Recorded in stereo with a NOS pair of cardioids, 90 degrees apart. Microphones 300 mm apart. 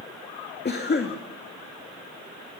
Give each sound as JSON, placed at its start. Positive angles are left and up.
{"t": 0.7, "sound": "a cough", "azimuth_deg": 35, "distance_m": 2.5}